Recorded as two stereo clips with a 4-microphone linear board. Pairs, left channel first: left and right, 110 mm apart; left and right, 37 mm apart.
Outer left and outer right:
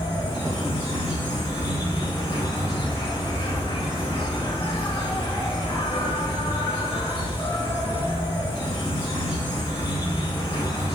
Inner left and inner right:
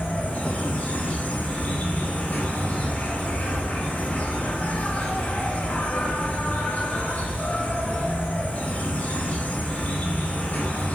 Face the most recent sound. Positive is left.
turn(degrees=50)  # may be behind; listen again after turning